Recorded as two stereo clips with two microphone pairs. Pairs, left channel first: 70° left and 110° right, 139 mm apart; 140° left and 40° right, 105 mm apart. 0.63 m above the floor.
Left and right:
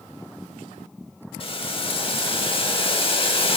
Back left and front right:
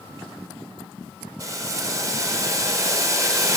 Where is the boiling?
20° left, 0.8 m.